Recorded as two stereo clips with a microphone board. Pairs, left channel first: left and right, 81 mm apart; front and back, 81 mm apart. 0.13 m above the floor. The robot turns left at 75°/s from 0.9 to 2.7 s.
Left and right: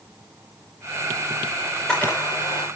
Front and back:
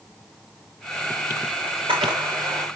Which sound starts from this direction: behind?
A camera shutter, at 1.6 s.